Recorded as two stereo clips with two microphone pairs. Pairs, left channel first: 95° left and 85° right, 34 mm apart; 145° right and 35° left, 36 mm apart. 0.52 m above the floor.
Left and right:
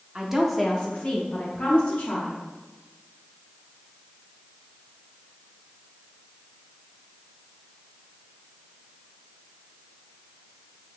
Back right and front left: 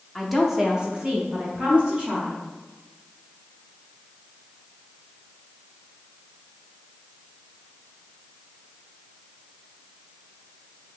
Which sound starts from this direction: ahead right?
A woman speaking, at 0.1 s.